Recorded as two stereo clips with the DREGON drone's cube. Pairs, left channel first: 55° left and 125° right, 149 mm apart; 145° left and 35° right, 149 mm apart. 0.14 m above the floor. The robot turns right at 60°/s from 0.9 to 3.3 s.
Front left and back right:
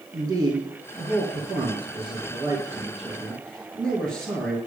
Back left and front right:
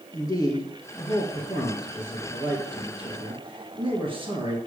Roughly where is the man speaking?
Behind.